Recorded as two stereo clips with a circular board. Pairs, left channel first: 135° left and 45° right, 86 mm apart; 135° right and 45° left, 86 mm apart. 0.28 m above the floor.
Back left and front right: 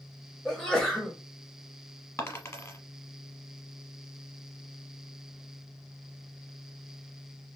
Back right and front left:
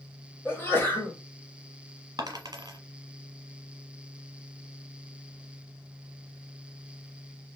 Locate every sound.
0.5 s a sneeze: 150° right, 1.0 m
2.2 s a dropped coin: 80° left, 1.0 m